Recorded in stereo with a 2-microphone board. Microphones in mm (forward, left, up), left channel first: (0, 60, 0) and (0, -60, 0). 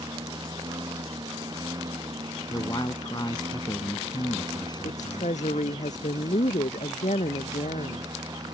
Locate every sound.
0.0 s a lawn mower: 35° right (ahead or behind)
2.5 s a man speaking: 35° left (ahead or behind)
4.8 s a woman speaking: 80° left